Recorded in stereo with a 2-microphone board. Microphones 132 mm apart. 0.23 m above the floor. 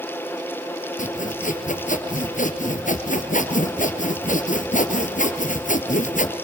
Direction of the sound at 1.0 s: 75° left (ahead or behind).